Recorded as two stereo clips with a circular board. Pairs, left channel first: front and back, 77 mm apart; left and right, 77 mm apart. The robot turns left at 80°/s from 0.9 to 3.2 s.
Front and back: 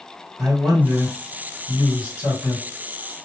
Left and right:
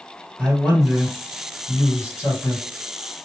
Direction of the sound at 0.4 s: 155° right.